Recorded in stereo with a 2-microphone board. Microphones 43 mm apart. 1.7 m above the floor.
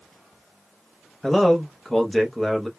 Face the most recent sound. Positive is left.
turn(degrees=5)  # may be behind; listen again after turning